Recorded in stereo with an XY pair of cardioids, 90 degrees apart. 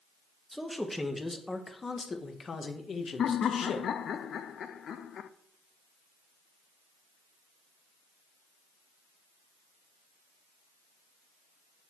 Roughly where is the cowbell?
I don't hear a cowbell.